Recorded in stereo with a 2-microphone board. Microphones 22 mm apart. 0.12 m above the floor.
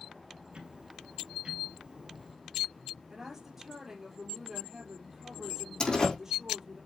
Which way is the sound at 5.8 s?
40° left (ahead or behind).